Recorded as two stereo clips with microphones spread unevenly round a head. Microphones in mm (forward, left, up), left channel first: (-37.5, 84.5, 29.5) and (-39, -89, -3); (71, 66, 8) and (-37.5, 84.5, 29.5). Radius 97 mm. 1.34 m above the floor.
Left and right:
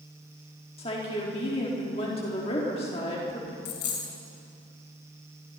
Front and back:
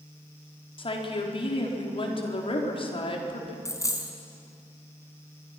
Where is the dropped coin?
55° left, 3.5 m.